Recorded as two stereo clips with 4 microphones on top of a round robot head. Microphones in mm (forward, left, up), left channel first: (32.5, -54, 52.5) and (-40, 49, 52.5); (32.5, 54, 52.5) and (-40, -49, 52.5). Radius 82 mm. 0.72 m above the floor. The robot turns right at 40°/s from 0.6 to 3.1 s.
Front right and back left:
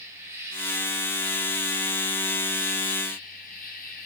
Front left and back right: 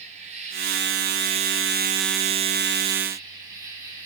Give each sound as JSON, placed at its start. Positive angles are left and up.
{"t": 0.0, "sound": "an insect", "azimuth_deg": -165, "distance_m": 4.0}